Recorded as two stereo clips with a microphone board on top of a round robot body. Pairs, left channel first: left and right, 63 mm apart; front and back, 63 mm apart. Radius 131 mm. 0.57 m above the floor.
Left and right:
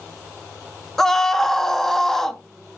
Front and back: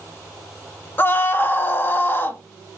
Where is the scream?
10° left, 0.9 m.